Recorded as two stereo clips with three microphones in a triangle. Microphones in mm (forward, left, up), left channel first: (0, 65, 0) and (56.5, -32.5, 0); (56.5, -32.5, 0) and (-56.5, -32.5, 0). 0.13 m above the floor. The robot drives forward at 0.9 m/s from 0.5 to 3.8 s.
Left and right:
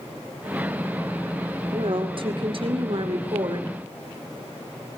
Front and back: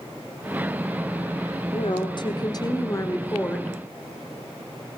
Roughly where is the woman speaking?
Ahead right.